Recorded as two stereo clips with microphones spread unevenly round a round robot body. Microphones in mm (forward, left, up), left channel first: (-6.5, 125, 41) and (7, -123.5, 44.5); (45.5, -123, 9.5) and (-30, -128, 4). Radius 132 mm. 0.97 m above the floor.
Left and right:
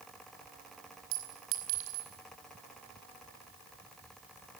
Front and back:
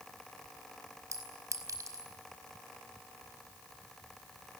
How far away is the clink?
About 5 m.